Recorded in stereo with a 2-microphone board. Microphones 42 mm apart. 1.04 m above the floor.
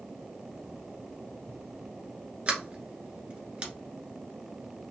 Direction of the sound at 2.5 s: 25° right (ahead or behind).